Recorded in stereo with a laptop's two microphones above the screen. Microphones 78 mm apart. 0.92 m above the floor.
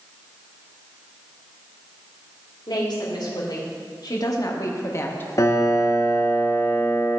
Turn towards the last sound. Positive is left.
turn(degrees=40)  # may be behind; listen again after turning